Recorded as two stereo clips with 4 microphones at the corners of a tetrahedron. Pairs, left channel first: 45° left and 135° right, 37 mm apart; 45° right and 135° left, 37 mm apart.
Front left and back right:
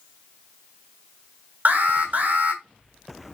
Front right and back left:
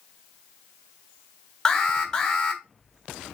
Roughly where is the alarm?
Behind right.